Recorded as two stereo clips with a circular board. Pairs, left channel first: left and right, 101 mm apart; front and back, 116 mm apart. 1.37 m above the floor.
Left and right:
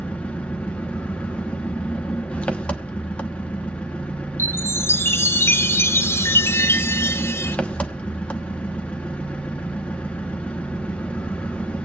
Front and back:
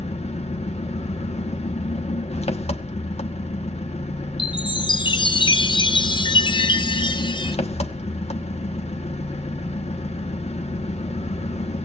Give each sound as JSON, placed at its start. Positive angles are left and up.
{"t": 0.0, "sound": "an engine running", "azimuth_deg": 15, "distance_m": 1.0}
{"t": 4.4, "sound": "a chime", "azimuth_deg": 30, "distance_m": 0.6}